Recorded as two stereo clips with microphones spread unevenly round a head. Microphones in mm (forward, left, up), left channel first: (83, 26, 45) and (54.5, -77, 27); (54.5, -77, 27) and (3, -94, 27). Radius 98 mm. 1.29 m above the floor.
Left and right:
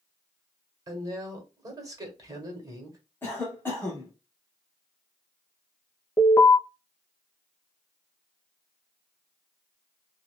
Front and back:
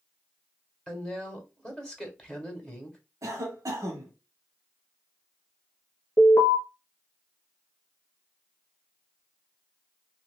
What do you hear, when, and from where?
0.9 s a woman speaking: 55° right, 1.5 m
3.2 s a cough: 155° left, 0.9 m
6.2 s an alarm: 30° left, 0.6 m